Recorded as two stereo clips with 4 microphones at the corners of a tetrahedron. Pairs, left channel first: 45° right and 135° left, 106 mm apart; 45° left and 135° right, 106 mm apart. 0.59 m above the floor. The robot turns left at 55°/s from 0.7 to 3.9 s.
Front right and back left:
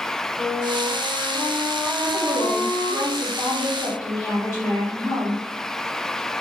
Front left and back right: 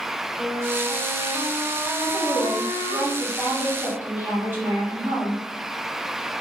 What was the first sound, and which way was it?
A flute, 55° right.